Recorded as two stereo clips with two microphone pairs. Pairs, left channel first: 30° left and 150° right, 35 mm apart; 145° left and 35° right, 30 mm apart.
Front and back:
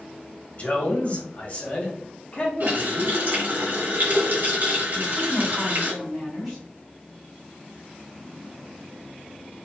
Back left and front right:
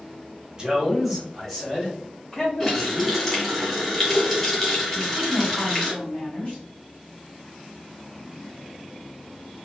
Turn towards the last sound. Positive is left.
turn(degrees=130)